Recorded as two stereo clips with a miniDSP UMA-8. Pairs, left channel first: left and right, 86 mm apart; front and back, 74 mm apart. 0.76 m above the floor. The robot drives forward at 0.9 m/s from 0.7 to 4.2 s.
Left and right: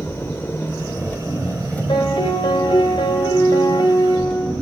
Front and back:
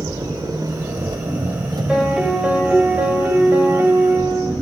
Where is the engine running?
150° left, 1.6 m; by 4.6 s 170° left, 4.5 m.